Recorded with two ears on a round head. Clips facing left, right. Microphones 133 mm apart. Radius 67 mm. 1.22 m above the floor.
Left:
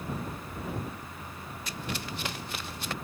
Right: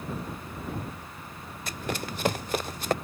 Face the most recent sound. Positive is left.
turn(degrees=-40)  # may be behind; listen again after turning